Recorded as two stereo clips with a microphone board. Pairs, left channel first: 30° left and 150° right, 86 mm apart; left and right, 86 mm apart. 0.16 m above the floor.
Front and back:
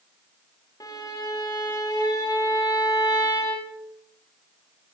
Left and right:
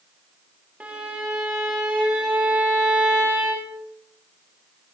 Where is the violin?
20° right, 9.5 m.